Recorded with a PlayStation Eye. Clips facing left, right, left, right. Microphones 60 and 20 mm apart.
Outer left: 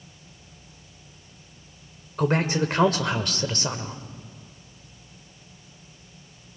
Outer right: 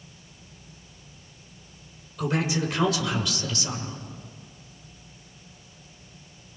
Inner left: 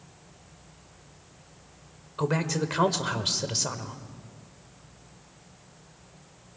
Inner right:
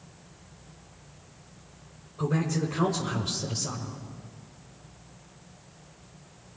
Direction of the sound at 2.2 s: 50° left (ahead or behind).